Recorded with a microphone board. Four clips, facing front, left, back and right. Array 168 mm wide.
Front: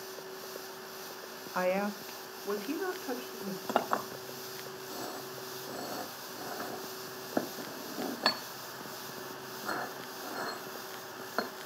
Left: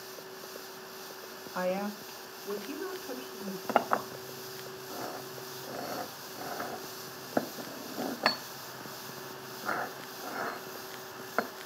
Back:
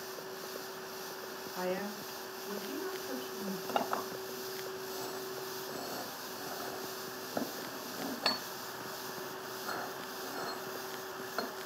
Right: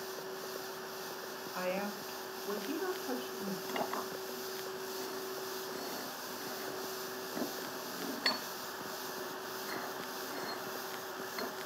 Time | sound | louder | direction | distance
1.5 | a woman speaking | left 5 dB, front 6 dB | 25° left | 1.5 m
3.7 | a clink | left 11 dB, front 4 dB | 65° left | 1.4 m